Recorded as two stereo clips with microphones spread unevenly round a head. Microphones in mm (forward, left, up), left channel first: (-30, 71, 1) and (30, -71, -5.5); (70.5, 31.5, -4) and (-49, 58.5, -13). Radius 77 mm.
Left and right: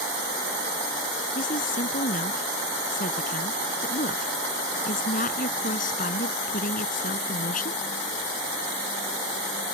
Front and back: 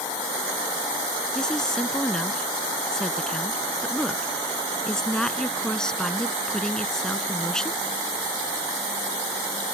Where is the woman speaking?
70° left.